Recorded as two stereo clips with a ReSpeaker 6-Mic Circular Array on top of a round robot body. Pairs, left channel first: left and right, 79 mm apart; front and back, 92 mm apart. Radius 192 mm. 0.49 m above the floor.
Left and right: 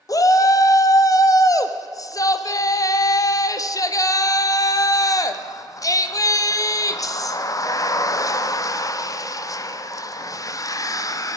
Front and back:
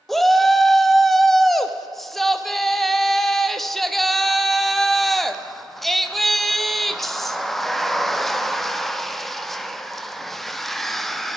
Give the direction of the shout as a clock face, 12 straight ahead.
9 o'clock.